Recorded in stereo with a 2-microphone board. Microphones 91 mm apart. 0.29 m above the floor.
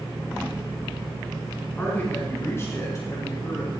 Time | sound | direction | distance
1.8 | a man speaking | 20° left (ahead or behind) | 3 m